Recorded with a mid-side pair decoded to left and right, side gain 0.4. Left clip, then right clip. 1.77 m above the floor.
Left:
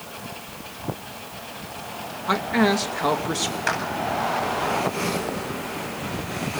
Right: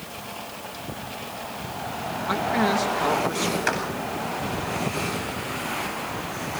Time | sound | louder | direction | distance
2.3 | a man speaking | left 2 dB | 40° left | 2.5 m
3.7 | a clap | left 2 dB | straight ahead | 8.5 m